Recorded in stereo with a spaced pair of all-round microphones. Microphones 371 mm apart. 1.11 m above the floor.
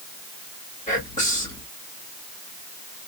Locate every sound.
0.9 s whispering: 20° left (ahead or behind), 1.8 m